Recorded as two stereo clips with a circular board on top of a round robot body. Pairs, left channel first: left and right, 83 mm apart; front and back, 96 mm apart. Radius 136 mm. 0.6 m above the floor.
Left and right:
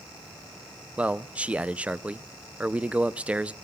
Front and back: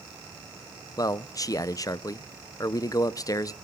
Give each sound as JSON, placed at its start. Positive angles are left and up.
{"t": 1.0, "sound": "a man speaking", "azimuth_deg": -25, "distance_m": 0.6}